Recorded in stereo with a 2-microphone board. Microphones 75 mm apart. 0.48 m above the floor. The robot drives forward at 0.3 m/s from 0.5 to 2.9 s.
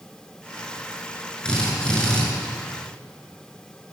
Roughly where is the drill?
Centre.